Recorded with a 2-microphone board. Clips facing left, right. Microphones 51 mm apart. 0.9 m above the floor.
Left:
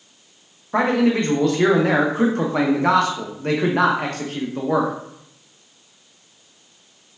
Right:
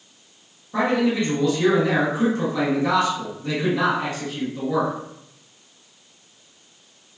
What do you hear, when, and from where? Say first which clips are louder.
0.7 s a man speaking: left 3 dB; 50° left (ahead or behind), 0.5 m